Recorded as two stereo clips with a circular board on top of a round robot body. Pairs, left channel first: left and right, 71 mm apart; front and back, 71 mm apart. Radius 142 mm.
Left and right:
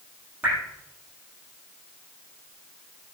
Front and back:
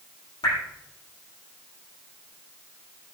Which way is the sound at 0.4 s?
20° right.